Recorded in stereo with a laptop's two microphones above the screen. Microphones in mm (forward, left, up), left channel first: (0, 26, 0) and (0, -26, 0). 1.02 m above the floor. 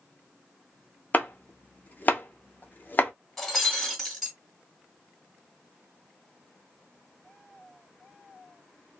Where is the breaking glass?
5° left (ahead or behind), 1.7 m.